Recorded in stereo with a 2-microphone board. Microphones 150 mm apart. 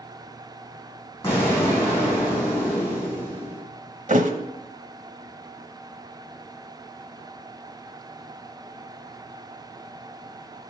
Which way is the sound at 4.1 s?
55° right (ahead or behind).